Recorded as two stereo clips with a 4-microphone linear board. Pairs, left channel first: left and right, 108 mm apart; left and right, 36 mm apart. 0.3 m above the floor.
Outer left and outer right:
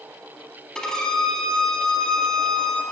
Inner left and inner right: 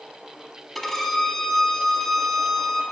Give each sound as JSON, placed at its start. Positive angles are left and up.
{"t": 0.8, "sound": "a violin", "side_deg": 5, "distance_m": 0.6}